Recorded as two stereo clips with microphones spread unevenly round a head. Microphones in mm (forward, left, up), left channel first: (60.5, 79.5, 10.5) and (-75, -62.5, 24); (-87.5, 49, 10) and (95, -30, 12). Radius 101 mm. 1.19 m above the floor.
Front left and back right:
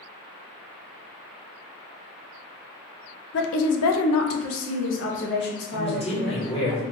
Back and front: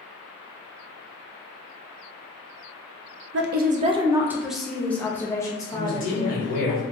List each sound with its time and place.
3.3 s a woman speaking: 10° left, 0.5 m; by 6.7 s 90° left, 1.9 m
5.7 s a man speaking: 105° left, 1.8 m